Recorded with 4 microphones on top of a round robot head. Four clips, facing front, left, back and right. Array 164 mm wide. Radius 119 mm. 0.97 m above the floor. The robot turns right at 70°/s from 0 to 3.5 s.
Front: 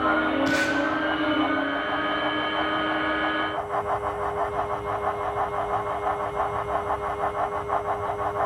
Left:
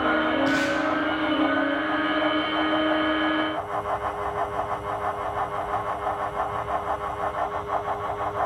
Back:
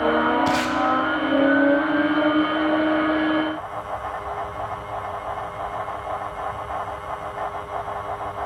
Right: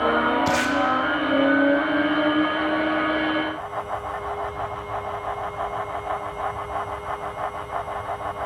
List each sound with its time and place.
0.5 s tape being pulled: 120° right, 0.8 m; by 0.8 s 100° right, 0.8 m